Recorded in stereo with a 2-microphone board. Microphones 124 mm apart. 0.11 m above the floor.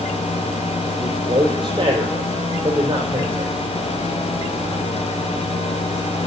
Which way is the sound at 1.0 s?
40° right (ahead or behind).